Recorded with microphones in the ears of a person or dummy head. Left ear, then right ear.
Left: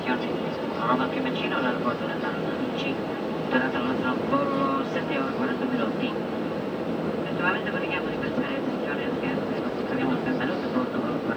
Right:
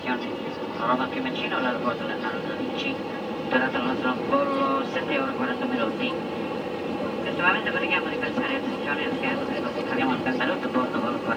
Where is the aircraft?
10° right (ahead or behind); by 11.4 s 40° right (ahead or behind).